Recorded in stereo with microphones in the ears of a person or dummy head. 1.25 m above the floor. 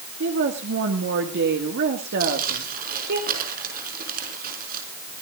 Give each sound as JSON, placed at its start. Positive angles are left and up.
{"t": 0.2, "sound": "a woman speaking", "side_deg": -55, "distance_m": 1.8}
{"t": 2.2, "sound": "crumpling", "side_deg": -50, "distance_m": 5.5}